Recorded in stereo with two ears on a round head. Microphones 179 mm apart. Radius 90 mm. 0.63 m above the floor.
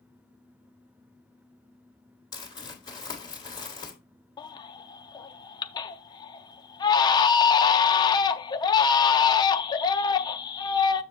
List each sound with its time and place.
2.3 s crumpling: 20° left (ahead or behind), 2 m
4.4 s a baby crying: 20° left (ahead or behind), 0.5 m